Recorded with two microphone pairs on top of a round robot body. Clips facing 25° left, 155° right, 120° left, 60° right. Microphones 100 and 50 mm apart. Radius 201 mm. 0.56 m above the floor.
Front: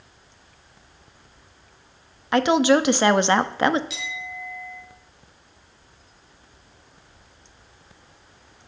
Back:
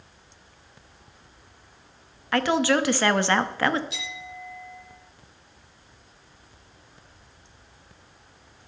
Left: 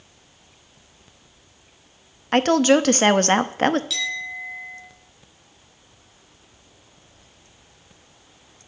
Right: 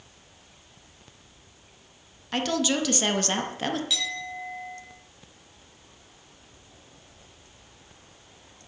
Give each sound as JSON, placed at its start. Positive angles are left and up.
{"t": 2.3, "sound": "a woman speaking", "azimuth_deg": 95, "distance_m": 0.9}
{"t": 3.9, "sound": "a clink", "azimuth_deg": 15, "distance_m": 5.5}